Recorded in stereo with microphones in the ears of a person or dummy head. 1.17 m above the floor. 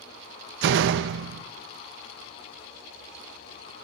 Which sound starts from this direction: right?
A door slam, at 0.6 s.